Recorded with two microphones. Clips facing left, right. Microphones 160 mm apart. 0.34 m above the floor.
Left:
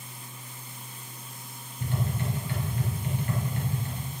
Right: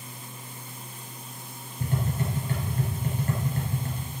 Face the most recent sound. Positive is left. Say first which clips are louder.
# right 2 dB
turn(degrees=-45)  # may be behind; listen again after turning